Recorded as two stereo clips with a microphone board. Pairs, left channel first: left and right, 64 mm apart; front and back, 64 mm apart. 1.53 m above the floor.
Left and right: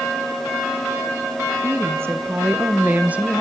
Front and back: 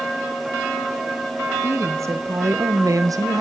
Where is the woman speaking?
135° right, 1.9 m; by 3.4 s 160° right, 1.3 m.